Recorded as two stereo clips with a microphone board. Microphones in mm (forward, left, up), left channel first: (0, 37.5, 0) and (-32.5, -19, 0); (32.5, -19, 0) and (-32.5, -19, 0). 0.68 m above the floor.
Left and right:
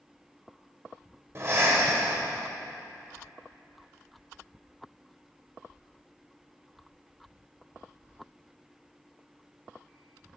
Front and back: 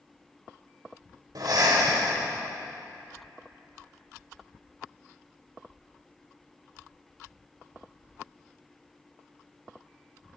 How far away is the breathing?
About 1.8 m.